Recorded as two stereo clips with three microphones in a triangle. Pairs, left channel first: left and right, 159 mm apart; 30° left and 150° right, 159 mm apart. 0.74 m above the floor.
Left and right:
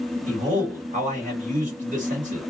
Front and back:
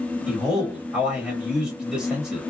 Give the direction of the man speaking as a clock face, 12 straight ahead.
2 o'clock.